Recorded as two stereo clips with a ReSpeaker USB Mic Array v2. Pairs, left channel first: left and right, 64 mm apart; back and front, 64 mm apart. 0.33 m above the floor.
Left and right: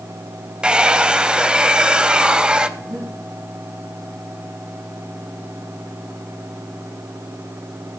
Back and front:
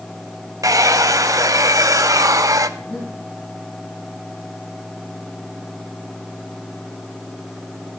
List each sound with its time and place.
0.6 s a hair dryer: 15° right, 0.5 m
2.8 s breathing: 115° right, 7.5 m